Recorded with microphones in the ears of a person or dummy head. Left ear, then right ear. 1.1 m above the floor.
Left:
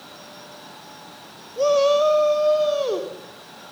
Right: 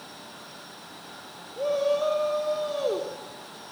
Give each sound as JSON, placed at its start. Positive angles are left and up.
{"t": 1.6, "sound": "a shout", "side_deg": 45, "distance_m": 2.0}